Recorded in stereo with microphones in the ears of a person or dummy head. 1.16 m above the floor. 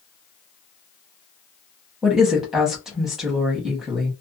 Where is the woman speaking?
5° right (ahead or behind), 1.1 m.